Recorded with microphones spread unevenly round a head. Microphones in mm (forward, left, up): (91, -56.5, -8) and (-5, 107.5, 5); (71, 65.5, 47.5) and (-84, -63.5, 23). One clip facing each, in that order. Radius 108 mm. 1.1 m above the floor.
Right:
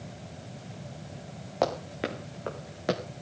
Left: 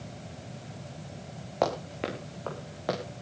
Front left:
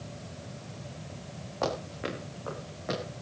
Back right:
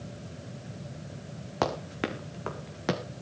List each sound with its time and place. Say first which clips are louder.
1.6 s running footsteps: even, back right 2 dB; 150° right, 4 m; by 3.0 s 130° right, 3.5 m